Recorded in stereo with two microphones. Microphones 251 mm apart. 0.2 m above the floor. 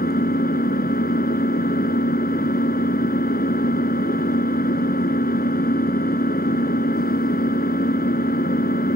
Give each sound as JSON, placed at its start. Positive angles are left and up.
{"t": 0.0, "sound": "an engine running", "side_deg": 35, "distance_m": 1.3}